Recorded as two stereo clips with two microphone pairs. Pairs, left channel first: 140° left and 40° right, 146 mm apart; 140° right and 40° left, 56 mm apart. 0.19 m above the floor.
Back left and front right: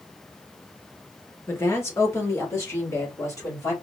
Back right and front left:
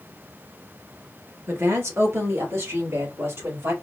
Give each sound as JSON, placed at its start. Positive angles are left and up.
{"t": 1.5, "sound": "a woman speaking", "azimuth_deg": 70, "distance_m": 2.5}